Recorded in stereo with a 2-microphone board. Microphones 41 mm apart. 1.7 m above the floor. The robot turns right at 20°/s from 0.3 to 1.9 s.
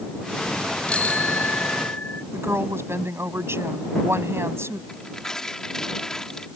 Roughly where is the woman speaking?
Right.